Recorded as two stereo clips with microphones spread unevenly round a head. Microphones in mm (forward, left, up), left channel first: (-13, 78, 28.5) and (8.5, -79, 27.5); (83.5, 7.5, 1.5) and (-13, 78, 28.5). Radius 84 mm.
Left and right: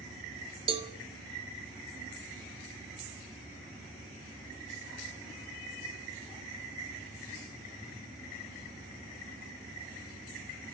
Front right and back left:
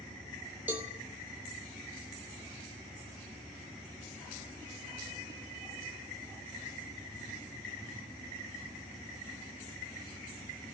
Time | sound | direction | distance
0.7 | a cowbell | 140° right | 1.5 m